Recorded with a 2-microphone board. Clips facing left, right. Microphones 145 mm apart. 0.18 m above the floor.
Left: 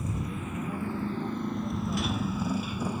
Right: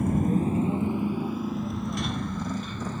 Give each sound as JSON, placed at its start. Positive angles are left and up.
{"t": 0.0, "sound": "a motorcycle", "side_deg": -60}